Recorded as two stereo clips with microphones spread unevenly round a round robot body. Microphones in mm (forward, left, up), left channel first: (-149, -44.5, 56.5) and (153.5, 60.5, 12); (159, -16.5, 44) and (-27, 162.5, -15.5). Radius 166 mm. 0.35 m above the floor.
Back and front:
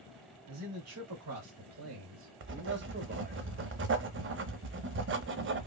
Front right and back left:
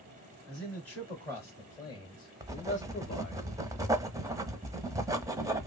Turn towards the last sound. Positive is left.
turn(degrees=65)